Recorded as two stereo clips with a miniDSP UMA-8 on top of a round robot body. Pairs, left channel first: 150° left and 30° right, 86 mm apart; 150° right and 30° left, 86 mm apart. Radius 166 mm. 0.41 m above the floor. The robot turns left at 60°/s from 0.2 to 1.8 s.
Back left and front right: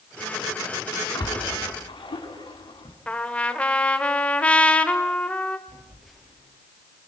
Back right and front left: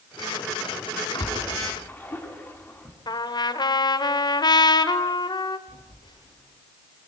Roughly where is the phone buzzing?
Behind right.